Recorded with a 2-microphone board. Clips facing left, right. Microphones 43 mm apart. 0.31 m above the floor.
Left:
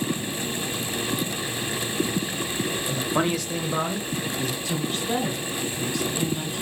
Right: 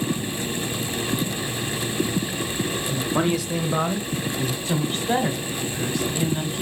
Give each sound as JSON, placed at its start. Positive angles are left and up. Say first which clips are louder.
{"t": 2.9, "sound": "a man speaking", "louder": "right 2 dB", "side_deg": 15, "distance_m": 1.0}
{"t": 4.7, "sound": "a woman speaking", "louder": "right 6 dB", "side_deg": -35, "distance_m": 2.0}